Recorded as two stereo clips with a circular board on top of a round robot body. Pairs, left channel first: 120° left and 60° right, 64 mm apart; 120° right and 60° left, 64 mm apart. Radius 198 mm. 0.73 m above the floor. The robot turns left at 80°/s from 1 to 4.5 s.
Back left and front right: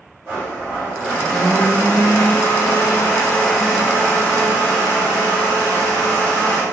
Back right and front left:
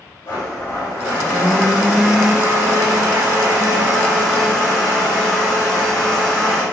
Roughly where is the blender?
Behind right.